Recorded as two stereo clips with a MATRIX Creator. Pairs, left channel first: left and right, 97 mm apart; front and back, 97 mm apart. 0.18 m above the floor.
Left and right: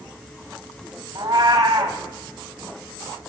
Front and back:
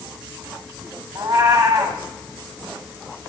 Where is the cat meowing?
135° right, 1.0 m.